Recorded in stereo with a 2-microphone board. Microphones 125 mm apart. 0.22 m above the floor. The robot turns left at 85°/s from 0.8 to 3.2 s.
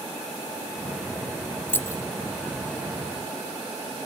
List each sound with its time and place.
1.7 s keys jangling: 15° left (ahead or behind), 1.0 m; by 2.0 s 25° left (ahead or behind), 1.0 m